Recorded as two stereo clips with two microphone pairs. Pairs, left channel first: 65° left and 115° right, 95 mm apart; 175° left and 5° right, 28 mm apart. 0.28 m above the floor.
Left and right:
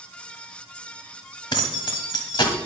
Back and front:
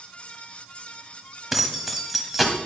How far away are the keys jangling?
About 1.0 m.